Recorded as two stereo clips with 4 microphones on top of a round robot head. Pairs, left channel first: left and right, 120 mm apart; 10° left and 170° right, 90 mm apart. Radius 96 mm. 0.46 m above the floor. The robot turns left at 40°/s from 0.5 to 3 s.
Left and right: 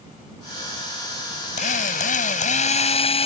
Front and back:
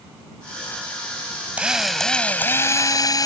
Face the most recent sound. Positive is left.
turn(degrees=55)